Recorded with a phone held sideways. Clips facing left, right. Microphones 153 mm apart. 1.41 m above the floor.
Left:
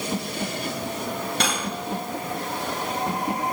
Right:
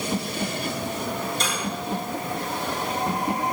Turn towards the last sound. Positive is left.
turn(degrees=70)  # may be behind; listen again after turning